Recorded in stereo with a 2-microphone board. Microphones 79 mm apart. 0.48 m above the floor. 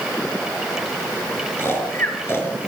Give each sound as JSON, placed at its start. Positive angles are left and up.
{"t": 1.6, "sound": "snoring", "side_deg": 30, "distance_m": 5.0}